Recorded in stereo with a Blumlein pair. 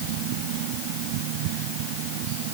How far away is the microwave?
I don't hear a microwave.